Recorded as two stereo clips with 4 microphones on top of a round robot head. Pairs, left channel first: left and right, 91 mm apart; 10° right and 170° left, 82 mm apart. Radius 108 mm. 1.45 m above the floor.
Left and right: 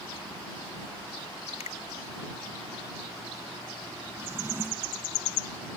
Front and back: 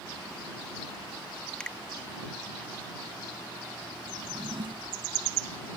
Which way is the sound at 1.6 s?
70° left.